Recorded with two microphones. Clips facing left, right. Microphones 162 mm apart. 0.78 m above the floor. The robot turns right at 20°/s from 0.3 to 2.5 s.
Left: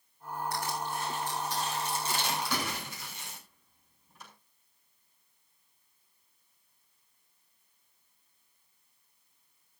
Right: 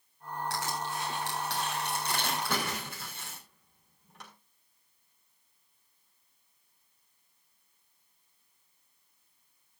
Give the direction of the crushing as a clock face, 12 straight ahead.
3 o'clock.